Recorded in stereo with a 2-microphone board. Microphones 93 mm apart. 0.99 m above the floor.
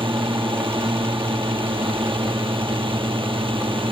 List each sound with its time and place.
0.0 s a drone: 70° right (ahead or behind)